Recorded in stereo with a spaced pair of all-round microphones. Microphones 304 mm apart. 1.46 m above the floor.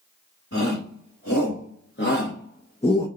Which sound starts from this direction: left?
A shout, at 0.5 s.